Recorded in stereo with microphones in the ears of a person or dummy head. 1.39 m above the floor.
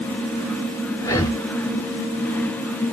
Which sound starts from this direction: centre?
Breathing, at 1.0 s.